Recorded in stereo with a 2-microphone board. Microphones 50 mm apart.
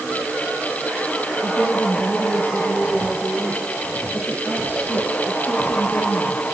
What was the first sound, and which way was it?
A woman speaking, 25° left (ahead or behind).